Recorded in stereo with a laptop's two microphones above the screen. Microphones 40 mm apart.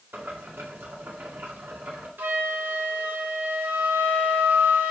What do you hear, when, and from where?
0.1 s boiling: 80° right, 2.5 m
2.2 s a flute: 65° right (ahead or behind), 1.7 m